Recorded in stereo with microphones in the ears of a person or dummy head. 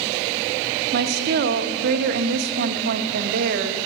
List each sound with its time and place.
0.9 s a woman speaking: 55° right (ahead or behind), 0.7 m